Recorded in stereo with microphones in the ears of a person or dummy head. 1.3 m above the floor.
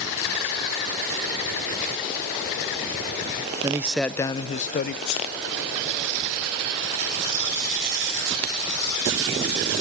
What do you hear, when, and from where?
3.6 s a man speaking: 20° right (ahead or behind), 0.5 m; by 5.0 s 50° left (ahead or behind), 0.7 m
5.0 s a sneeze: 70° left (ahead or behind), 4 m